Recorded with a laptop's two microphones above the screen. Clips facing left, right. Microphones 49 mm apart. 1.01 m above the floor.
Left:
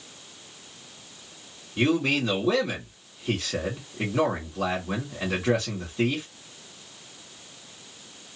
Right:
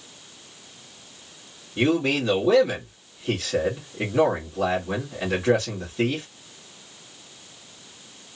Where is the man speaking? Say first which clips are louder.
Right 2 dB; 5° right (ahead or behind), 1.4 m.